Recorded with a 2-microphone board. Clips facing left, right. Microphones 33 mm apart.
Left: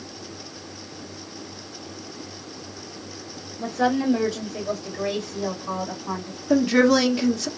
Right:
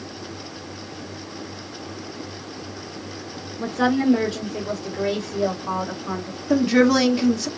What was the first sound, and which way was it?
A woman speaking, 35° right (ahead or behind).